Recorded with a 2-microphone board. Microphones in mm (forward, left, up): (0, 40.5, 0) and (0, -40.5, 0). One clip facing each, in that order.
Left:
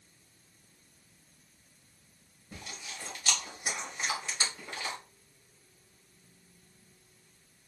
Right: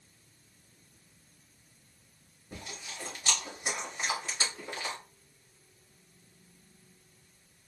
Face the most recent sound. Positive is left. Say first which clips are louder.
# right 1 dB
turn(degrees=-25)  # may be behind; listen again after turning